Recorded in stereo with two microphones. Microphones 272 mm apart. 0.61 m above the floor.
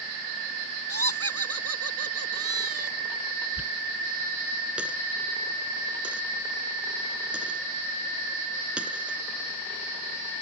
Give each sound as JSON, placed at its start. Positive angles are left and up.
{"t": 0.9, "sound": "laughter", "side_deg": -60}
{"t": 3.6, "sound": "a dropped coin", "side_deg": -5}